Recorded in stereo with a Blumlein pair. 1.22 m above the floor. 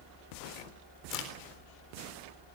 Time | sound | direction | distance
1.1 | a crack | 40° left | 3.5 m